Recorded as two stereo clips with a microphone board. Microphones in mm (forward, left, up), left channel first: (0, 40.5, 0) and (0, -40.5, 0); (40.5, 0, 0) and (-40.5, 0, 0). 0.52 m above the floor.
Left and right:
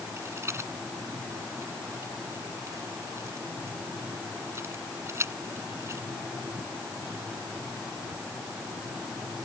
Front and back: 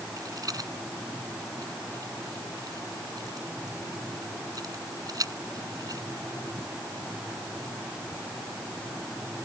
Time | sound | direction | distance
0.2 | a rattle | 145° right | ?